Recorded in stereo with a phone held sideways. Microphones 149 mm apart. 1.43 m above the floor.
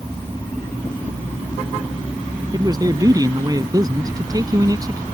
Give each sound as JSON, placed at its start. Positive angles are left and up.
{"t": 2.5, "sound": "a man speaking", "side_deg": -25}